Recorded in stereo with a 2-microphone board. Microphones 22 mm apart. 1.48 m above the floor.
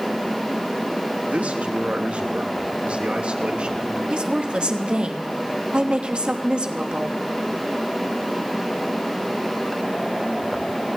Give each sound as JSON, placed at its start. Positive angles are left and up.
{"t": 1.3, "sound": "a man speaking", "side_deg": -85, "distance_m": 3.5}
{"t": 4.1, "sound": "a woman speaking", "side_deg": -45, "distance_m": 3.0}